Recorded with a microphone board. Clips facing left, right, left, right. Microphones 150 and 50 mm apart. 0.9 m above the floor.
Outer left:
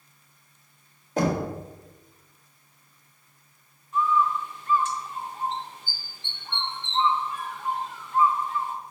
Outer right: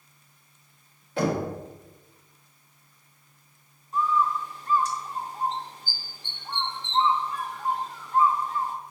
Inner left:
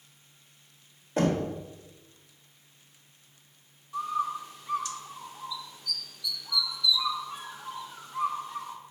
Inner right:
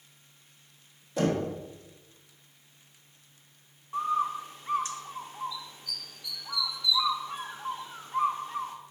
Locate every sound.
1.2 s knocking: 40° left (ahead or behind), 1.2 m
3.9 s a bird: 35° right (ahead or behind), 0.5 m